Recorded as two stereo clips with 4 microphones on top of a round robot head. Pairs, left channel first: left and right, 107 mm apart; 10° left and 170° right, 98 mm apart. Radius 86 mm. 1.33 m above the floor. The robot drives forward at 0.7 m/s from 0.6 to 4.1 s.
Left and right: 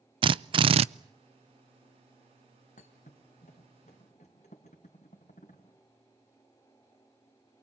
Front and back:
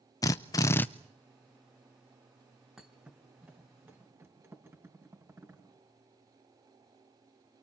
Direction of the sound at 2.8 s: 110° left.